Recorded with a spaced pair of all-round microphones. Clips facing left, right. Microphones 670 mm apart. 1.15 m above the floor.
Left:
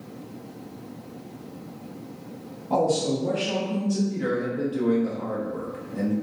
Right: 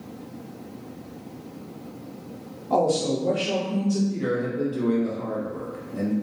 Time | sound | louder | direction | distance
2.7 | a woman speaking | right 1 dB | 5° right (ahead or behind) | 0.6 m
4.1 | a man speaking | right 1 dB | 25° left (ahead or behind) | 0.5 m